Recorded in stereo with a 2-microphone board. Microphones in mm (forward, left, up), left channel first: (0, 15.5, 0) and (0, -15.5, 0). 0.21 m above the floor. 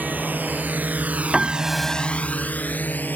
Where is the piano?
20° right (ahead or behind).